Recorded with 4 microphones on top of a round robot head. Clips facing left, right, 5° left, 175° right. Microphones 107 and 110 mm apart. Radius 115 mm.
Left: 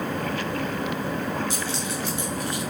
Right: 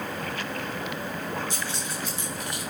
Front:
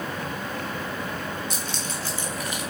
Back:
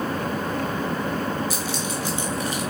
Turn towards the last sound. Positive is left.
turn(degrees=160)